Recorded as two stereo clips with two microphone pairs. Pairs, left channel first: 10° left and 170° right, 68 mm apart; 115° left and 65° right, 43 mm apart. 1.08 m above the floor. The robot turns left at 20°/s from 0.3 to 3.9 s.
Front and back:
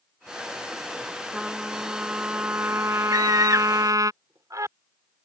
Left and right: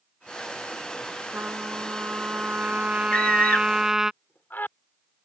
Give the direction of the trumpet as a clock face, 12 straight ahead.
3 o'clock.